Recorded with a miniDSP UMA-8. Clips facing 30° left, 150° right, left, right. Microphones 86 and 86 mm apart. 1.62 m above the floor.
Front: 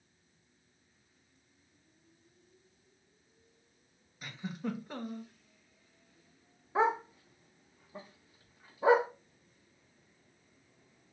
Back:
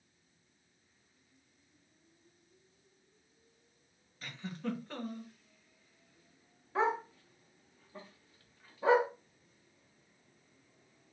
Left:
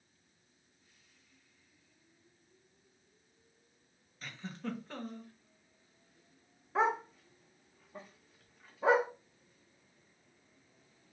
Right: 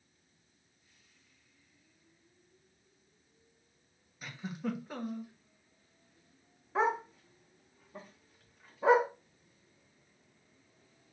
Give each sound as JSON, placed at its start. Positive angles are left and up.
{"t": 4.2, "sound": "a giggle", "azimuth_deg": -25, "distance_m": 1.0}
{"t": 6.8, "sound": "a dog barking", "azimuth_deg": 0, "distance_m": 1.1}